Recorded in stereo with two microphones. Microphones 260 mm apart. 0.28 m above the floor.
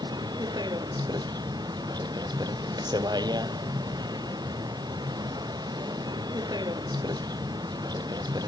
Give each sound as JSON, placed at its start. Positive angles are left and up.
{"t": 0.0, "sound": "a vehicle", "side_deg": -15}